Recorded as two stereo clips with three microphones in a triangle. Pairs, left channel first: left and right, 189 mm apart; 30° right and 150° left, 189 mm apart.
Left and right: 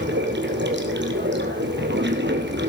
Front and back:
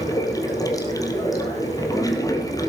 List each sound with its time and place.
0.0 s running water: 100° right, 2.5 m